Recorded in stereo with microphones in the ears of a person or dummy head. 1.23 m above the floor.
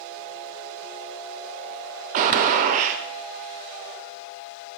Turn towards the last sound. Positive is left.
turn(degrees=-45)  # may be behind; listen again after turning